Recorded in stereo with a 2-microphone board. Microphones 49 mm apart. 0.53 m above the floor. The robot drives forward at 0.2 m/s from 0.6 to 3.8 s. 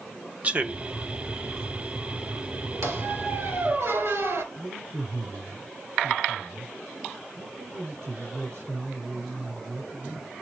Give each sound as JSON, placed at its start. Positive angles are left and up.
{"t": 0.4, "sound": "a man speaking", "side_deg": -30, "distance_m": 1.0}
{"t": 2.8, "sound": "a squeak", "side_deg": -75, "distance_m": 2.0}
{"t": 4.5, "sound": "a man speaking", "side_deg": -80, "distance_m": 7.0}